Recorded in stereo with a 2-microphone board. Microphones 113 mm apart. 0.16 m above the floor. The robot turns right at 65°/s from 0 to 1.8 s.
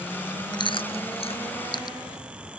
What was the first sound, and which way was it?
Chewing, 40° left (ahead or behind).